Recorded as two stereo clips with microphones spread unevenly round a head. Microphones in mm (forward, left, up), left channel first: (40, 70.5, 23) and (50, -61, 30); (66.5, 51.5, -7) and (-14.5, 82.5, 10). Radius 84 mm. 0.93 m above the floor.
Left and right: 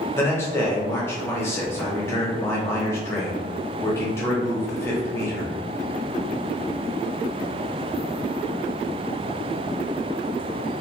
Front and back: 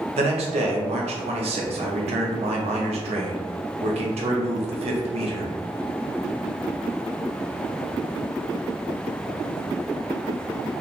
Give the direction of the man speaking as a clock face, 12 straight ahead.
6 o'clock.